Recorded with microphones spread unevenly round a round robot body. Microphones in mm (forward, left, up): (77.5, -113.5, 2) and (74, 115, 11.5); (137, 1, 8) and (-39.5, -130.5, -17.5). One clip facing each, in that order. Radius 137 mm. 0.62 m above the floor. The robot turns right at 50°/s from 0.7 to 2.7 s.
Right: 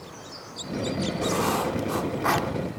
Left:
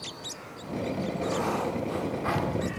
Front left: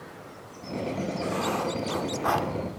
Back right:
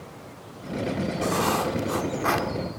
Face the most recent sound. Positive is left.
turn(degrees=-70)